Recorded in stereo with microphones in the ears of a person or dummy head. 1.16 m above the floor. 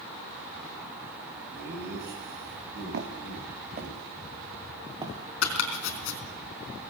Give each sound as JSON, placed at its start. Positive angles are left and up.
{"t": 1.5, "sound": "laughter", "side_deg": -60, "distance_m": 9.5}
{"t": 2.9, "sound": "footsteps", "side_deg": -60, "distance_m": 4.5}
{"t": 5.4, "sound": "chopping", "side_deg": 70, "distance_m": 3.5}